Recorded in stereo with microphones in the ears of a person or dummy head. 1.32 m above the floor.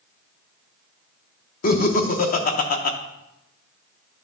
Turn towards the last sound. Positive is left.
turn(degrees=50)  # may be behind; listen again after turning